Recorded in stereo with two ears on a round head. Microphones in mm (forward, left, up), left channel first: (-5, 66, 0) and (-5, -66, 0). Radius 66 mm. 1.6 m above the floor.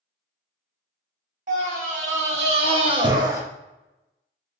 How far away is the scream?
About 1.5 m.